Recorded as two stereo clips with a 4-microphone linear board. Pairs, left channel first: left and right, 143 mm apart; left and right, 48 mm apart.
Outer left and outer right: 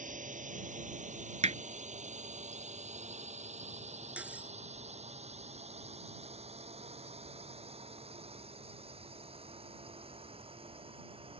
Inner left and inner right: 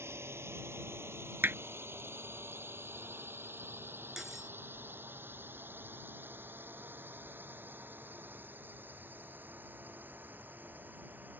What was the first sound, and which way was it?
A drone, 65° right (ahead or behind).